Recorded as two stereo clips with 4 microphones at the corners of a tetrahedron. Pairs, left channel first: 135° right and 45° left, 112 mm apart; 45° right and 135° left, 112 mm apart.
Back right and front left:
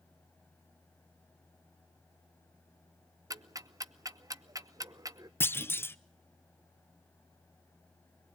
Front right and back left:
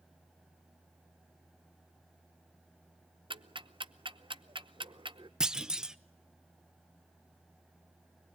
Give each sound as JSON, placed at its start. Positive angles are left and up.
{"t": 3.3, "sound": "ticking", "azimuth_deg": 100, "distance_m": 0.7}
{"t": 5.4, "sound": "a clunk", "azimuth_deg": -150, "distance_m": 0.5}